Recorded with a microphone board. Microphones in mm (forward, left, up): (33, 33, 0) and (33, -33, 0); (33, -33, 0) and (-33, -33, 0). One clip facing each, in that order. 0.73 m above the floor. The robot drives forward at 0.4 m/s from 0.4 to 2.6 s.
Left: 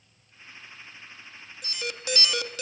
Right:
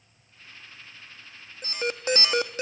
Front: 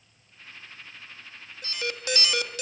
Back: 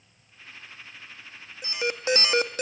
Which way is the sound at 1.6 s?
115° right.